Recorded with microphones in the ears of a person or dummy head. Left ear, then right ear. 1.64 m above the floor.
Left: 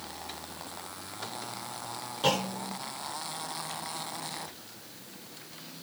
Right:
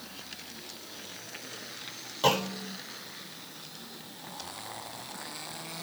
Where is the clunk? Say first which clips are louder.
Right 2 dB; 30° right (ahead or behind), 1.1 m.